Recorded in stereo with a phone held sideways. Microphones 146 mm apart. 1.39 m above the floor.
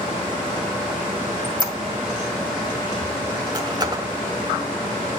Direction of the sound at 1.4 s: 30° right (ahead or behind).